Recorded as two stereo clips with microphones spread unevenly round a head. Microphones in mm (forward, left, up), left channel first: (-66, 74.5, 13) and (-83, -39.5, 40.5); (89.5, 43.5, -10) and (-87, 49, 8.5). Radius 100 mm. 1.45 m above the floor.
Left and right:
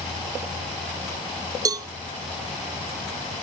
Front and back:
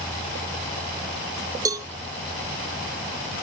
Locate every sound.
1.6 s a cowbell: 120° right, 0.6 m